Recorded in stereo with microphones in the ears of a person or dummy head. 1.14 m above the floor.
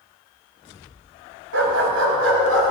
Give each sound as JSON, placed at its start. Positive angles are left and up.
{"t": 1.5, "sound": "a dog barking", "side_deg": -70, "distance_m": 2.5}